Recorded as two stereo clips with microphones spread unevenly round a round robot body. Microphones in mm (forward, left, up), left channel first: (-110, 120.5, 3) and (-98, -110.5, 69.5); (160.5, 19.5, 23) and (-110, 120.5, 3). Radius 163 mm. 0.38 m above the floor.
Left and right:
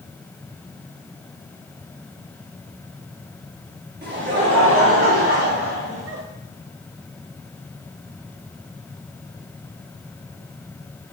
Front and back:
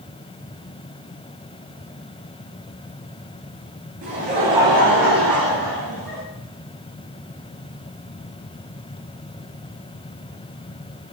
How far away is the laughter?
About 2.5 m.